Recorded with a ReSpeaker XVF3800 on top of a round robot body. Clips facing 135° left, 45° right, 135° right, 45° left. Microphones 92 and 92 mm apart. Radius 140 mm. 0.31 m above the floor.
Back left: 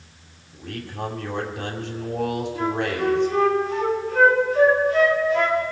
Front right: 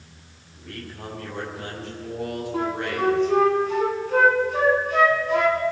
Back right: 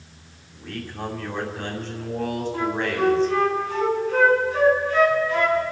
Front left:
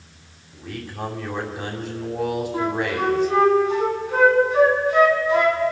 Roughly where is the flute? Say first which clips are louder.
Front right 2 dB, back right 1 dB; ahead right.